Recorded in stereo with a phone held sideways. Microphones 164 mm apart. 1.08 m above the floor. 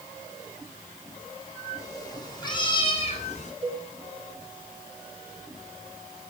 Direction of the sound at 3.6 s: 40° right (ahead or behind).